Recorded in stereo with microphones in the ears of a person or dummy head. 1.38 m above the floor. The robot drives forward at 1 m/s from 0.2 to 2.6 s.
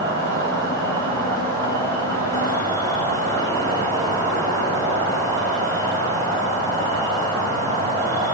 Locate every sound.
0.0 s an insect: 65° right (ahead or behind), 4.5 m; by 8.3 s 40° right (ahead or behind), 6 m